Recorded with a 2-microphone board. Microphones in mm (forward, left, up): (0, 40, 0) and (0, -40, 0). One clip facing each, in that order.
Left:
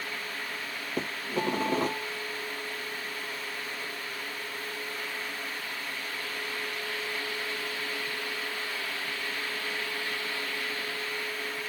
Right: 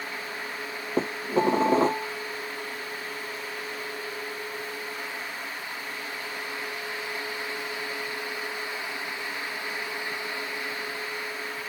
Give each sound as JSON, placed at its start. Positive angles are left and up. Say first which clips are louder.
{"t": 1.0, "sound": "dishes clattering", "louder": "right 7 dB", "side_deg": -30}